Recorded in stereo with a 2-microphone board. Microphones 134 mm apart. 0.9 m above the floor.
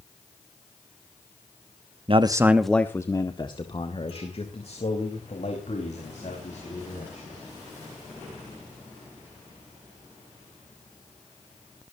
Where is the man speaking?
45° right (ahead or behind), 0.9 m; by 7.3 s 60° left (ahead or behind), 6.5 m.